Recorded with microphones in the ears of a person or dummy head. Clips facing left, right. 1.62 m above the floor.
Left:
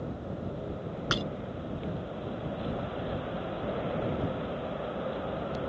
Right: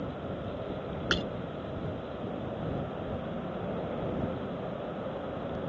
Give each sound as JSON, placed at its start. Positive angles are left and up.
{"t": 1.1, "sound": "breaking glass", "side_deg": -15}